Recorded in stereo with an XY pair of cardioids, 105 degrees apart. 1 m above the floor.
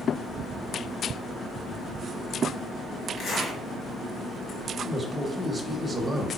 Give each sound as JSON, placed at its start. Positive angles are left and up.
{"t": 3.2, "sound": "a zipper", "azimuth_deg": 65, "distance_m": 1.4}
{"t": 4.8, "sound": "a man speaking", "azimuth_deg": -10, "distance_m": 0.9}